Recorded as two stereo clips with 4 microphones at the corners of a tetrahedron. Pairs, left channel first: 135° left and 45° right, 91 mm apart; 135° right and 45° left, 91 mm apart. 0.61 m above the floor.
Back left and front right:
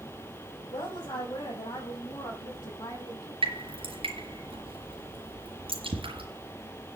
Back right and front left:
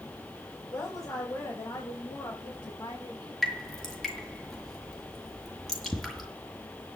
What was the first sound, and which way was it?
A woman speaking, 175° left.